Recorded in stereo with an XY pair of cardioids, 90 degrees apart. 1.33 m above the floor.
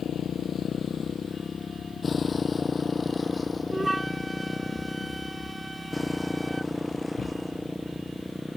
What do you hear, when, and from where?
0.0 s a motorcycle: 65° left; by 8.6 s 10° left
3.7 s a flute: 15° right